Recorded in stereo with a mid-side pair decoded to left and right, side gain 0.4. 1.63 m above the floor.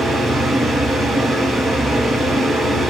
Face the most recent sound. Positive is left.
turn(degrees=-45)